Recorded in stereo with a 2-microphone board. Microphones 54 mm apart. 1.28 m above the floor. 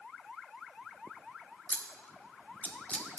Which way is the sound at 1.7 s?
25° left (ahead or behind).